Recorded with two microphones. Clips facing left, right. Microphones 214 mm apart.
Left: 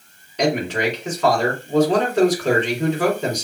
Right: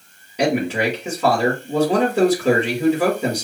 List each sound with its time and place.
0.4 s a man speaking: 10° right (ahead or behind), 2.5 m